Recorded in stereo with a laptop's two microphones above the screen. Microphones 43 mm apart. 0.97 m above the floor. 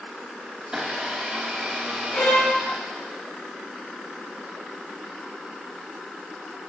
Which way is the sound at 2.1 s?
45° left (ahead or behind).